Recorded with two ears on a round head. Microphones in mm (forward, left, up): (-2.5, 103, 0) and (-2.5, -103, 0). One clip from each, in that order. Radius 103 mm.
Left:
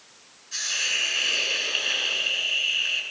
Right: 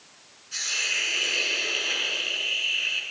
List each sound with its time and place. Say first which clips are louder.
0.5 s a hiss: left 1 dB; 10° right (ahead or behind), 9 m